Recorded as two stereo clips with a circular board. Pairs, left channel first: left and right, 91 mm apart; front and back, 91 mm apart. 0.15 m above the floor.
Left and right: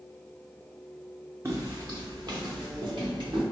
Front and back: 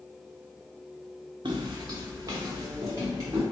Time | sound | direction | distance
1.4 | footsteps | 150° right | 0.7 m